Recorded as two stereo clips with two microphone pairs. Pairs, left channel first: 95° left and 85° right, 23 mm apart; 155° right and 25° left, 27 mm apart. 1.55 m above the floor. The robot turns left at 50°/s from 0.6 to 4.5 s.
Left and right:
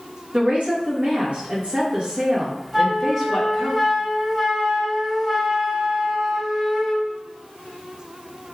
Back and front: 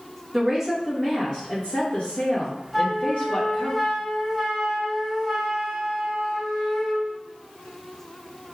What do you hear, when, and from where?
0.3 s a woman speaking: 60° right, 1.3 m; by 3.7 s 145° left, 1.3 m
2.7 s a flute: 110° right, 0.8 m; by 7.1 s 165° left, 0.8 m